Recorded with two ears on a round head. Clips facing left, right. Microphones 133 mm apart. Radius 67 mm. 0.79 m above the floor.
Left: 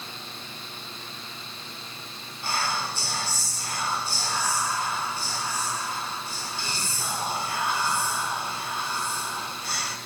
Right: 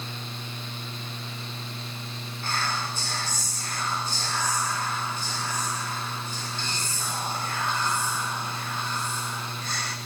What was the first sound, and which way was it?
Whispering, 10° left (ahead or behind).